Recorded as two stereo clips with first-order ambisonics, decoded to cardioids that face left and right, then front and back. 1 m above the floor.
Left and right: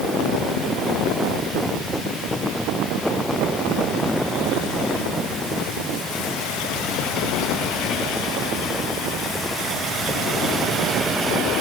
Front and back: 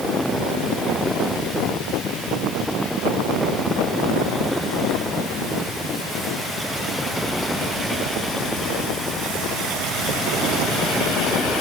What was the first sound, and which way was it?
Only background noise.